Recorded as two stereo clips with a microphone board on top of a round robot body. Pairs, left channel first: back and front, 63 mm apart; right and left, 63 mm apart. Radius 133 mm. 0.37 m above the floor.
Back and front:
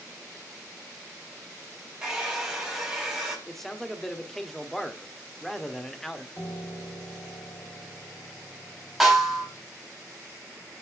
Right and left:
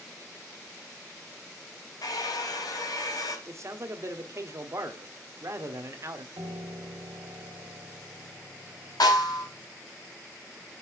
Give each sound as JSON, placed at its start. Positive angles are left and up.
{"t": 2.0, "sound": "a hair dryer", "azimuth_deg": -85, "distance_m": 4.0}
{"t": 3.5, "sound": "a man speaking", "azimuth_deg": 95, "distance_m": 1.5}
{"t": 6.4, "sound": "a piano", "azimuth_deg": 115, "distance_m": 2.0}
{"t": 9.0, "sound": "a snare drum", "azimuth_deg": -90, "distance_m": 5.0}